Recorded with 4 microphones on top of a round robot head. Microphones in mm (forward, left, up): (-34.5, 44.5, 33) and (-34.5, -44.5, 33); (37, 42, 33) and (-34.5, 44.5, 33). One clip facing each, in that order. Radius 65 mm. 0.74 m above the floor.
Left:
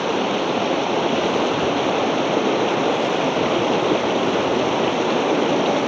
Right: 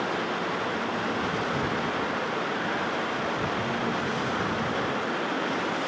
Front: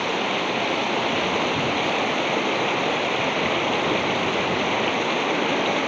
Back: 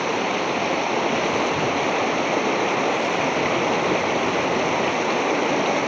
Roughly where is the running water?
Left.